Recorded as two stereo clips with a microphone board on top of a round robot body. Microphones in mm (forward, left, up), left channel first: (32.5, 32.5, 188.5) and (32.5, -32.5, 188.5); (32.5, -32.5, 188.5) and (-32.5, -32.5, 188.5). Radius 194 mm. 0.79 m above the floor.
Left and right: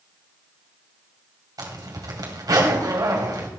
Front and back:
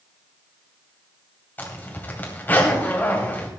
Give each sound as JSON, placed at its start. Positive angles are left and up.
{"t": 1.6, "sound": "a zipper", "azimuth_deg": -60, "distance_m": 2.5}